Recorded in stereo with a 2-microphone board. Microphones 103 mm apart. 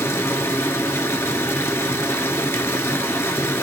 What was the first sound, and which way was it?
Running water, 25° left (ahead or behind).